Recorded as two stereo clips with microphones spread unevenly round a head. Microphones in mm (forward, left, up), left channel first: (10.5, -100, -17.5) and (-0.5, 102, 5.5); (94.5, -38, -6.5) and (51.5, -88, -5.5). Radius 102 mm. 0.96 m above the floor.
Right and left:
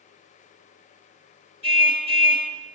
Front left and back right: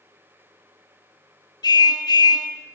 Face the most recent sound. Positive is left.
turn(degrees=30)